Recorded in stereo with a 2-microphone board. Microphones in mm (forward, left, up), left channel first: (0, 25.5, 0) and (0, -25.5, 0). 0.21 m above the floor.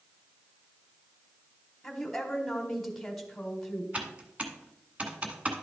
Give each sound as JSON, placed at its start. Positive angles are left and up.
{"t": 1.8, "sound": "a woman speaking", "side_deg": 5, "distance_m": 1.3}
{"t": 3.9, "sound": "typing on a keyboard", "side_deg": -25, "distance_m": 1.0}